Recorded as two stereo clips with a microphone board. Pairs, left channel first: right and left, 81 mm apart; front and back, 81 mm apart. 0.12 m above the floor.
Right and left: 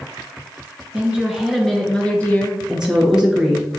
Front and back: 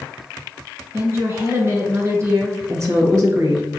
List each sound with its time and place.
0.9 s a woman speaking: 155° left, 1.3 m; by 2.6 s 145° right, 1.4 m
2.7 s a woman speaking: 170° left, 1.7 m